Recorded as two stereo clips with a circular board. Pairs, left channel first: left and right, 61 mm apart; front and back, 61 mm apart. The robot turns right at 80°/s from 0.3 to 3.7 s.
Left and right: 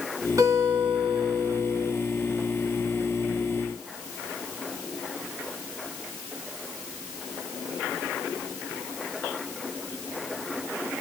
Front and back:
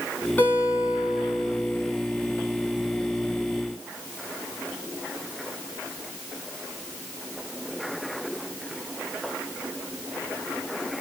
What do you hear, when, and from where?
0.4 s a guitar: 65° right, 3 m; by 1.9 s 60° left, 3 m